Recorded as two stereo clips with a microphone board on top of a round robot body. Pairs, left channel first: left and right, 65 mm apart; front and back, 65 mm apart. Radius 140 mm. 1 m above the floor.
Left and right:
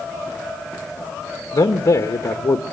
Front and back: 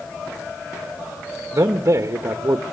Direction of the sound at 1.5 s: 125° left.